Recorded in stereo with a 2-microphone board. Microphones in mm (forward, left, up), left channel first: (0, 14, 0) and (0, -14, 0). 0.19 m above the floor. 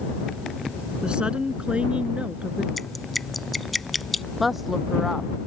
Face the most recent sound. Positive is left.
turn(degrees=-5)  # may be behind; listen again after turning